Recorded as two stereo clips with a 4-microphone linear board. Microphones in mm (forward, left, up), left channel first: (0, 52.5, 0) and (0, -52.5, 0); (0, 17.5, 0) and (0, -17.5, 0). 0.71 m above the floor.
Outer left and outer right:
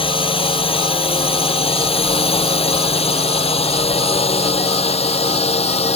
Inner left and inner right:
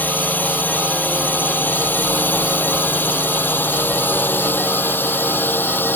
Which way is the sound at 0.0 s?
60° left (ahead or behind).